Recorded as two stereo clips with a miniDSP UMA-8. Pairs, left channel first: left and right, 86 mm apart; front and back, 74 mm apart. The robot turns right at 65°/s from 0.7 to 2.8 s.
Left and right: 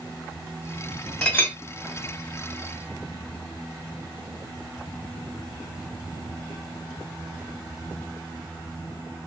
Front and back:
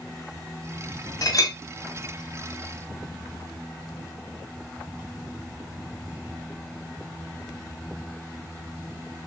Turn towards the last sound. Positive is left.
turn(degrees=115)